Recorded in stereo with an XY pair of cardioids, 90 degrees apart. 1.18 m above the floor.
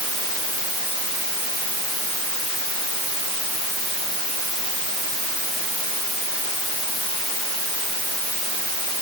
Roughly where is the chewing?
I don't hear chewing.